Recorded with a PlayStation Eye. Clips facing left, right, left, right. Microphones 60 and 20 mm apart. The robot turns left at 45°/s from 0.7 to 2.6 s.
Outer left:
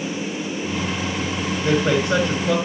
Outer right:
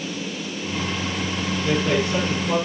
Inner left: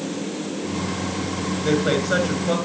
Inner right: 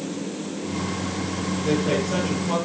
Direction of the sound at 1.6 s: 135° left.